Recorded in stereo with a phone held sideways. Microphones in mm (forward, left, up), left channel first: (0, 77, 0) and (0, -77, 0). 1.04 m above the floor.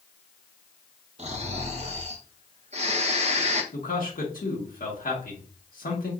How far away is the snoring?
About 0.6 m.